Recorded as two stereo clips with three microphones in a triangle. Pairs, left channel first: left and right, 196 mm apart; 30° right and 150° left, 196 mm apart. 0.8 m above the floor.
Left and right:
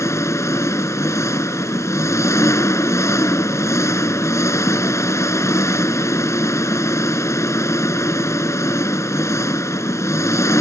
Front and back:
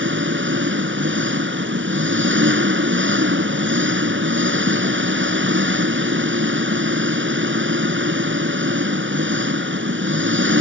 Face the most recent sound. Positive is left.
turn(degrees=165)